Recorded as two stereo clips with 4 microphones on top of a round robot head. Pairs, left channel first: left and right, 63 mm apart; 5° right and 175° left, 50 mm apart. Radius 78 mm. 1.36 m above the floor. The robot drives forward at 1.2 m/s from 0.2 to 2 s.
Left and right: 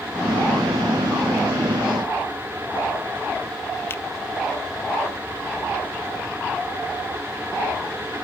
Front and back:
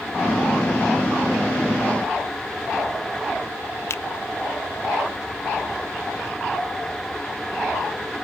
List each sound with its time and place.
3.9 s a finger snap: 30° left